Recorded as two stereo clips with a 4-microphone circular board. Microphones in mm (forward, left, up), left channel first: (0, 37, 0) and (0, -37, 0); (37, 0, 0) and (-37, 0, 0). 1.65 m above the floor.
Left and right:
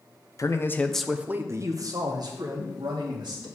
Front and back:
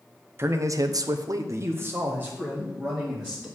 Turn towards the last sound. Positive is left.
turn(degrees=-105)